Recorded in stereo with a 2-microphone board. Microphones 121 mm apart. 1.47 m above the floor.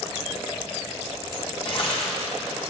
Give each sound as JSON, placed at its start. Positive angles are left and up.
{"t": 1.6, "sound": "tearing paper", "side_deg": 50, "distance_m": 1.6}